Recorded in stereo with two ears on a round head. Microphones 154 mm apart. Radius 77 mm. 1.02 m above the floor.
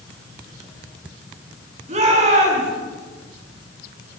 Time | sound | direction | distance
1.9 | a shout | 40° right (ahead or behind) | 9.5 m